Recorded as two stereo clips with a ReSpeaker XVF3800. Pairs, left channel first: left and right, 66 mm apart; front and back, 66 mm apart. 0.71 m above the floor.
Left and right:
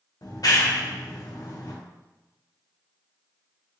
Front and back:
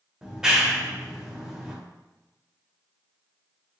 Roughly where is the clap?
Left.